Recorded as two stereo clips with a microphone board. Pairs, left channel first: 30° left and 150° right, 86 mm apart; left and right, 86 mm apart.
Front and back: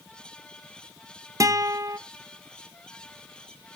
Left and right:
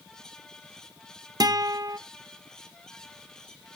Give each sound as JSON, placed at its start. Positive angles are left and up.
{"t": 1.4, "sound": "a guitar", "azimuth_deg": -110, "distance_m": 0.9}